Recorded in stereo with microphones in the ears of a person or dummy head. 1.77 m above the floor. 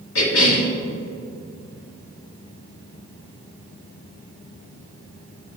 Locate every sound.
0.1 s a cough: 85° left, 1.4 m